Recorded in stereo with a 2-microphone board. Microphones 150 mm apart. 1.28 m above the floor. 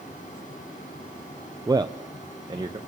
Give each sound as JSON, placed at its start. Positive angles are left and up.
{"t": 1.7, "sound": "a man speaking", "side_deg": -25, "distance_m": 0.7}